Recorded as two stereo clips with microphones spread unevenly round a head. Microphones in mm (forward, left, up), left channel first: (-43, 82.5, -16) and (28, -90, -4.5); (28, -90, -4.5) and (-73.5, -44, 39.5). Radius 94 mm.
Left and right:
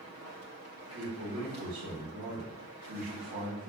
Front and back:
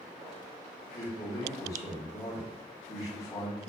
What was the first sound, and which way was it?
A man speaking, 80° right.